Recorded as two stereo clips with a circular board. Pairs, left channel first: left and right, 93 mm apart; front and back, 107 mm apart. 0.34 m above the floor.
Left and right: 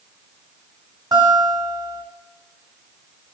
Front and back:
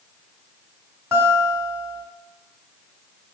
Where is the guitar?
120° right, 1.8 m.